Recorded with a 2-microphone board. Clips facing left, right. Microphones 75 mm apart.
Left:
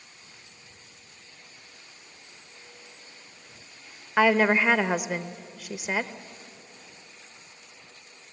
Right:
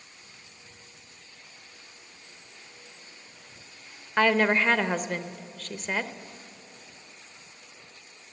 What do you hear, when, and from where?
4.2 s a woman speaking: 10° left (ahead or behind), 0.8 m